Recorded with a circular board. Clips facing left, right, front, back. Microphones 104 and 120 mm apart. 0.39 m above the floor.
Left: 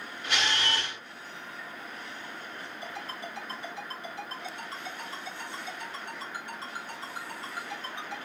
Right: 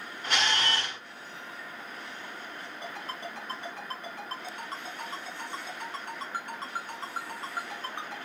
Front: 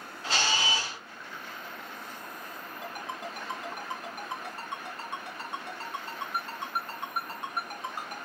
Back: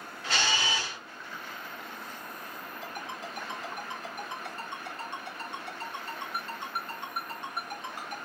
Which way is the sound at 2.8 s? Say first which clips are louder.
Right 1 dB, front 2 dB; 50° right.